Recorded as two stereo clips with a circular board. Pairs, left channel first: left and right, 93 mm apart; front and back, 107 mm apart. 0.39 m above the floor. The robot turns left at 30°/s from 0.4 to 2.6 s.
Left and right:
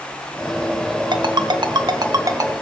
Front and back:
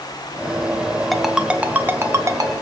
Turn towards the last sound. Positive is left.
turn(degrees=-135)